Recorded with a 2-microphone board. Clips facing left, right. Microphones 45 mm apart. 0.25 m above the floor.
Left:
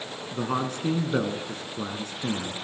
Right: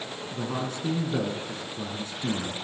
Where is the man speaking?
50° left (ahead or behind), 2.5 m.